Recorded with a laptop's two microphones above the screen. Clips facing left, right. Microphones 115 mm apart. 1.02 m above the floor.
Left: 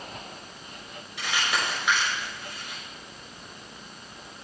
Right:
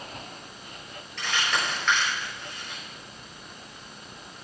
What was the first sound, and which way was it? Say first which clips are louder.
Crumpling: even; 10° left (ahead or behind).